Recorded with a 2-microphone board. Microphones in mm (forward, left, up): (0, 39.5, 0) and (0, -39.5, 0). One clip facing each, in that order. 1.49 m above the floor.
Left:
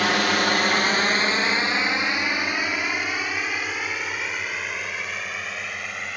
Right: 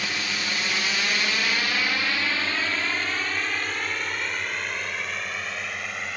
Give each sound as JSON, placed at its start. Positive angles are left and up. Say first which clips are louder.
{"t": 0.0, "sound": "a drone", "louder": "left 9 dB", "side_deg": 70}